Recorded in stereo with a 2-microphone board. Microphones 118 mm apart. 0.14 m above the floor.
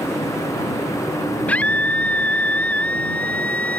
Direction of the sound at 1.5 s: 10° left (ahead or behind).